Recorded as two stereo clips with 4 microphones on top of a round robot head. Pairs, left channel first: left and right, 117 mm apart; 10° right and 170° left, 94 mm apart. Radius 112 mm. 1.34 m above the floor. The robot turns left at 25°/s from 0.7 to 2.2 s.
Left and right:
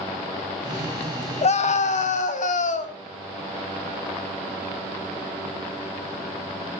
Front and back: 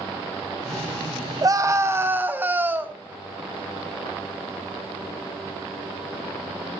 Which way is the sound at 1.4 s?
115° left.